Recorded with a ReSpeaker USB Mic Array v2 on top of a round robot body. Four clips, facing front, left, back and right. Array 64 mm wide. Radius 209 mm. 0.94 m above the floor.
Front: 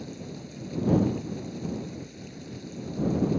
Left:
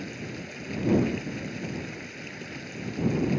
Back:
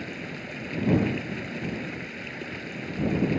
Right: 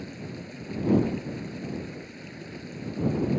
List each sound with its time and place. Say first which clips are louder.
0.0 s running water: left 1 dB, back 3 dB; 165° left